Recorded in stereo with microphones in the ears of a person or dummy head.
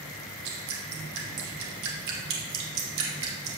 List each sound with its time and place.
0.5 s dripping: 70° right (ahead or behind), 1.5 m